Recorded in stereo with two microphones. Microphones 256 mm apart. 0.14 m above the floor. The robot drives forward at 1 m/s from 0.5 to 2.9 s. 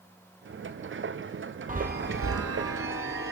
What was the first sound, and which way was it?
A chime, 30° right (ahead or behind).